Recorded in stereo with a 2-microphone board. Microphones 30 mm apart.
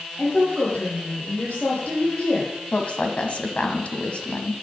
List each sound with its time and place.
0.2 s a woman speaking: 50° left (ahead or behind), 5.5 m
2.7 s a woman speaking: 45° left (ahead or behind), 1.8 m